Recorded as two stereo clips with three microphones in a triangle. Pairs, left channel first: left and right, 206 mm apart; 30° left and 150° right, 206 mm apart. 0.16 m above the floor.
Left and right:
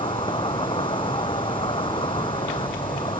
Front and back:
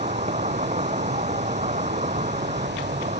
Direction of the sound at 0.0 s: 155° left.